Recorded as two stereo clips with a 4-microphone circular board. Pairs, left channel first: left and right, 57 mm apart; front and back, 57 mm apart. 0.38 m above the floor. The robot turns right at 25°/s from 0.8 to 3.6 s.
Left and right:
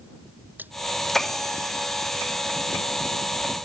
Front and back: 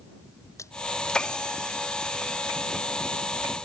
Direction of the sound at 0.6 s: 30° right.